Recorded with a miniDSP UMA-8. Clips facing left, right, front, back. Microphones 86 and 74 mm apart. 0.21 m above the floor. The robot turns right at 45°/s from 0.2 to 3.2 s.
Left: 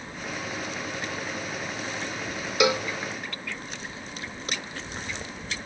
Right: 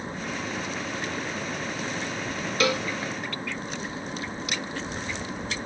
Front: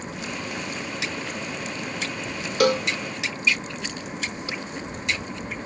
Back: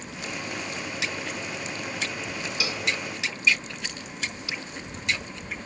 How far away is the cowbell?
About 0.5 m.